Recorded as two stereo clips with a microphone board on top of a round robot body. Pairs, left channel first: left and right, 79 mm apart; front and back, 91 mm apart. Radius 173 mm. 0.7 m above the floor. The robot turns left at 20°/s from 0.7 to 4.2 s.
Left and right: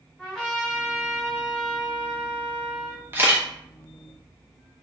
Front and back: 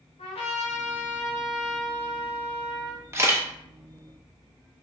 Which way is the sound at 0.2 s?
5° left.